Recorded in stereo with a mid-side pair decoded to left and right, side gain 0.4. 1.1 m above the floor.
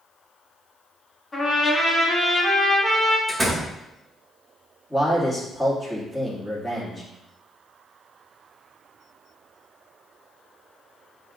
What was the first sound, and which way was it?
A trumpet, 25° left.